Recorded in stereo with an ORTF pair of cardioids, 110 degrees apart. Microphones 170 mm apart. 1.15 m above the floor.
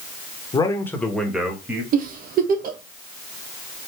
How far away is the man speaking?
About 1.4 m.